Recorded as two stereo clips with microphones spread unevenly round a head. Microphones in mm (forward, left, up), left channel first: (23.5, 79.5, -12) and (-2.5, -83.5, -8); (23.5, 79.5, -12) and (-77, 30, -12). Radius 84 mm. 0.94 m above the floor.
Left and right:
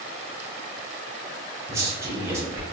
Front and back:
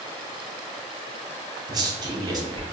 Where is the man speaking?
165° right, 0.6 m.